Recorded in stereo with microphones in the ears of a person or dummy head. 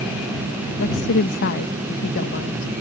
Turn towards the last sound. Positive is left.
turn(degrees=55)  # may be behind; listen again after turning